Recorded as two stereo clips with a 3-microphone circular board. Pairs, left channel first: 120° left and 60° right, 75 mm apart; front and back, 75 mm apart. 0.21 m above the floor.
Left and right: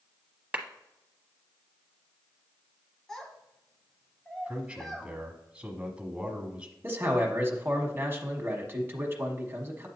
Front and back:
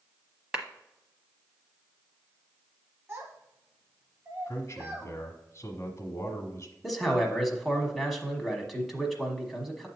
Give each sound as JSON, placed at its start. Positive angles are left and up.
{"t": 0.5, "sound": "a clap", "azimuth_deg": -110, "distance_m": 0.9}
{"t": 3.1, "sound": "a child speaking", "azimuth_deg": -165, "distance_m": 0.9}
{"t": 4.5, "sound": "a man speaking", "azimuth_deg": 5, "distance_m": 1.3}
{"t": 6.8, "sound": "a man speaking", "azimuth_deg": -95, "distance_m": 1.2}